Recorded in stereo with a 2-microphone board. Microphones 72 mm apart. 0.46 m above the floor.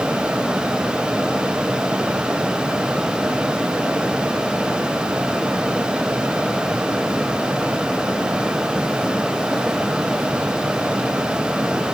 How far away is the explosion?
No explosion in this recording.